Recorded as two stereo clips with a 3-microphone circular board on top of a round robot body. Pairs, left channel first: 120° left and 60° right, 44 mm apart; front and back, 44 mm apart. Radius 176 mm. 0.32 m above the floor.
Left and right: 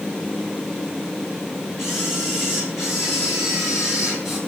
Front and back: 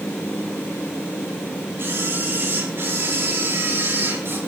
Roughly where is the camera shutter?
Behind right.